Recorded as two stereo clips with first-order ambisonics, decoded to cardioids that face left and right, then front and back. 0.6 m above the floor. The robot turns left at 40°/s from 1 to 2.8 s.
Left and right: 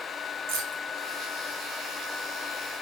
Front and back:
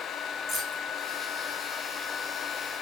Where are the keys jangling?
85° right, 3.5 m.